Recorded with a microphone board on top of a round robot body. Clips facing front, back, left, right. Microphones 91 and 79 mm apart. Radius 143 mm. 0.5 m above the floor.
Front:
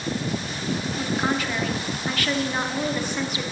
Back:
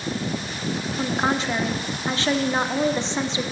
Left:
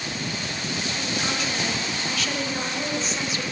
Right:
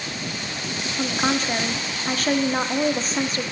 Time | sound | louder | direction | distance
1.0 | a woman speaking | back 3 dB, right 8 dB | 125° right | 1.3 m